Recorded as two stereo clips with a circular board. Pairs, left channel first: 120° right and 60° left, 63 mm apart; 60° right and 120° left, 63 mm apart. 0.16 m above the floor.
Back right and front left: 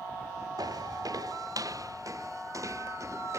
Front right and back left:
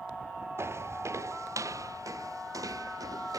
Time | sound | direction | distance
0.6 | footsteps | 70° left | ?